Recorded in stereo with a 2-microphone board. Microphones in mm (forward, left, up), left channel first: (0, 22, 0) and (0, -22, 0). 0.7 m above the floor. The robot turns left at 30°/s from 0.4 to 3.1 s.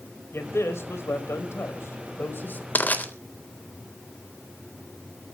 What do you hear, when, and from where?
0.3 s a man speaking: 115° left, 4 m; by 2.6 s 45° left, 4 m
2.8 s crushing: 45° left (ahead or behind), 3.5 m; by 3.0 s 40° left (ahead or behind), 3.5 m